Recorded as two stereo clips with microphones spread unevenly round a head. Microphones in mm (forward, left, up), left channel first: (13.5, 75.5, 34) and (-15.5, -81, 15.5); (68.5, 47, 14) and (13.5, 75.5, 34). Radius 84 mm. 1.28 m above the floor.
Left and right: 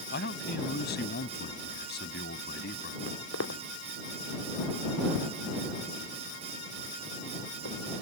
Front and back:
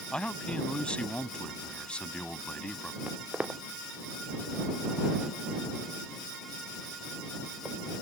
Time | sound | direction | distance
0.1 | a man speaking | 50° left | ?
3.1 | footsteps | 85° left | ?